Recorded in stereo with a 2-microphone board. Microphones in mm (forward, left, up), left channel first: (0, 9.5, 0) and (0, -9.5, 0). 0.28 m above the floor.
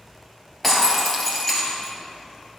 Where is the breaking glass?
5° left (ahead or behind), 2 m.